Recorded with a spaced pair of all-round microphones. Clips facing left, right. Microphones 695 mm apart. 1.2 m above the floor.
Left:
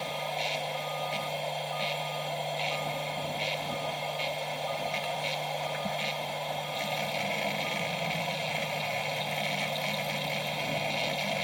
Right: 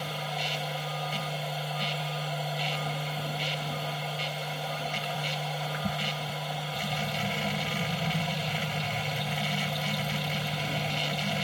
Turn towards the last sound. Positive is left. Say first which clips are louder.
# left 1 dB
turn(degrees=-45)  # may be behind; listen again after turning